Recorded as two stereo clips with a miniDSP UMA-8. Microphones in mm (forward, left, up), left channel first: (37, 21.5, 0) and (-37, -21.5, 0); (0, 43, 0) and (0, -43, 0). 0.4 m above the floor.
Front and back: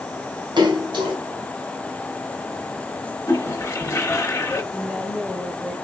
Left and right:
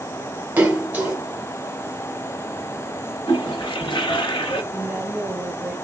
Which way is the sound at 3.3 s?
80° left.